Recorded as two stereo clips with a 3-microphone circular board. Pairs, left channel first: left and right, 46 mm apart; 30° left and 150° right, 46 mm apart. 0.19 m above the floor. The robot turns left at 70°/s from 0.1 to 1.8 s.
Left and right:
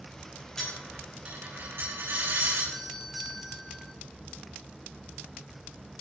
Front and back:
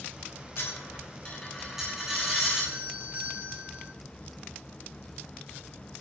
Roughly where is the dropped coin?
Ahead.